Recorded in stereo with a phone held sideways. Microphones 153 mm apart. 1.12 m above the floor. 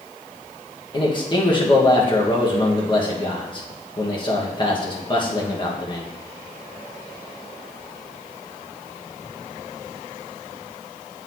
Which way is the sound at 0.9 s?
30° left (ahead or behind).